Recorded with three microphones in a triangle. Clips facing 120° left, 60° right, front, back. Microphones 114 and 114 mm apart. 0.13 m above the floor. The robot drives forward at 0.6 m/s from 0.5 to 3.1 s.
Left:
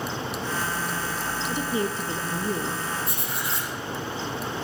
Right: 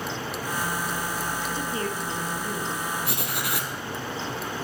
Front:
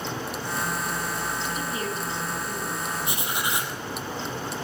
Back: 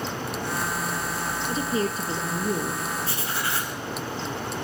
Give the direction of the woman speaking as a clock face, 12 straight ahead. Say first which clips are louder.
Left 3 dB, back 4 dB; 6 o'clock.